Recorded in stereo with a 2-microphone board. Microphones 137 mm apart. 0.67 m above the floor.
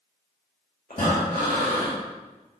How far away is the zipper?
I don't hear a zipper.